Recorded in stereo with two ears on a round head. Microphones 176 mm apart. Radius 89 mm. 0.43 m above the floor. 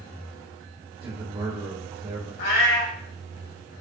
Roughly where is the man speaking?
Right.